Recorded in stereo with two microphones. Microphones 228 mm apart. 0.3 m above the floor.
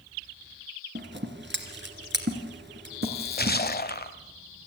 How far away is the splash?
About 1.0 m.